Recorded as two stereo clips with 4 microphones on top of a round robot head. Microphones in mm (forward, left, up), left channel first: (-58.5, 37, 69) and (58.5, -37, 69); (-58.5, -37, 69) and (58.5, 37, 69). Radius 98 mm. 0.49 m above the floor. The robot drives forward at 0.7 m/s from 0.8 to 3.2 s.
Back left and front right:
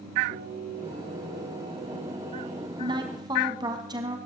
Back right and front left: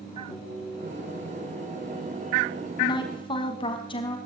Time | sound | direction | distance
0.3 | singing | 55° right | 7.5 m
2.8 | a woman speaking | 90° right | 4 m